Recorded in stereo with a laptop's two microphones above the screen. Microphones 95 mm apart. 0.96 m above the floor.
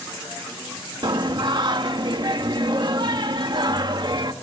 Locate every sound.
1.0 s singing: 50° right (ahead or behind), 1.2 m